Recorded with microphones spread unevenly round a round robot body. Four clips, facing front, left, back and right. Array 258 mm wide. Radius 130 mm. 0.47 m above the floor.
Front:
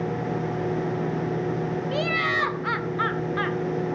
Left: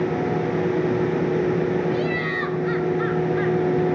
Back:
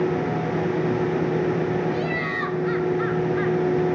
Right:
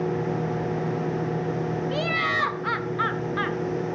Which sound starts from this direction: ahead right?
Laughter, at 1.9 s.